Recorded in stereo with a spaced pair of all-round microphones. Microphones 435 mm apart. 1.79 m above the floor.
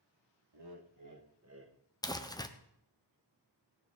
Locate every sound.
0.5 s laughter: 65° right (ahead or behind), 1.5 m; by 1.8 s 25° right (ahead or behind), 1.7 m
2.0 s crumpling: 10° left (ahead or behind), 1.0 m